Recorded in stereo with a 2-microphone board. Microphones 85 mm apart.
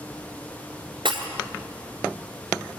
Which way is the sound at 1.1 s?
80° right.